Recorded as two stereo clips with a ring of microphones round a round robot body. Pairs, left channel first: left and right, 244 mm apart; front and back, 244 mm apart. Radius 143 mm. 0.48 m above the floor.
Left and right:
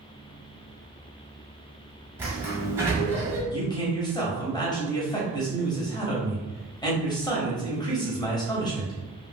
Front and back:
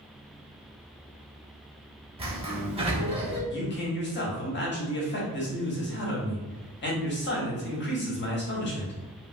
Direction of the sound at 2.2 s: 155° right.